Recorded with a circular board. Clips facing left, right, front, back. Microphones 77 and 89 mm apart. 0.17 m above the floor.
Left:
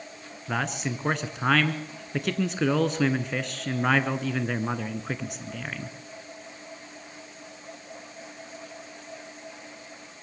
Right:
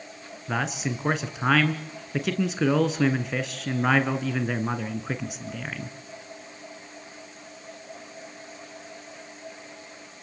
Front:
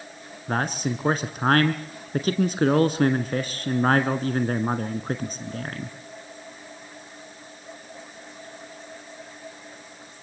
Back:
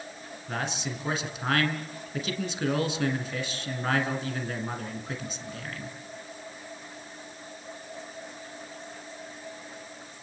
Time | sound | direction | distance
0.5 | a man speaking | 5° right | 1.7 m